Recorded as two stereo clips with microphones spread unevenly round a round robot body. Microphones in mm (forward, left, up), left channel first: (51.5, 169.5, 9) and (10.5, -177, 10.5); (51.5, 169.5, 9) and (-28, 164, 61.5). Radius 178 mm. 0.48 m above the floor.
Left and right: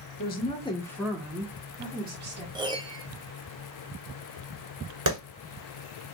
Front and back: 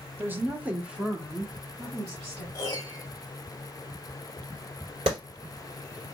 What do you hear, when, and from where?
0.2 s a woman speaking: 70° left, 1.2 m; by 2.5 s 45° right, 1.7 m
2.5 s a piano: 20° right, 0.6 m
5.1 s a clap: 130° right, 1.9 m